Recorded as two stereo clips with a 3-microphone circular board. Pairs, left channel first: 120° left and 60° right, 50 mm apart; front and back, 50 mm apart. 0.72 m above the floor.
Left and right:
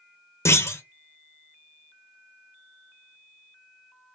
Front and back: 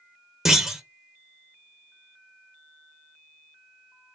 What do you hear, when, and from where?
0.5 s a clunk: 100° left, 0.6 m